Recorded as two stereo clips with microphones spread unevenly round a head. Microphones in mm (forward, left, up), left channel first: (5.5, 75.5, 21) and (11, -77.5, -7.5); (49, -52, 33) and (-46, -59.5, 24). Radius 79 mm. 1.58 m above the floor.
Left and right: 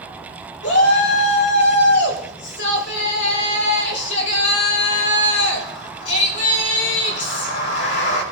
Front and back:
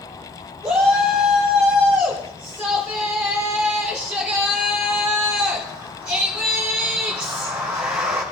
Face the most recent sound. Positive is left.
turn(degrees=100)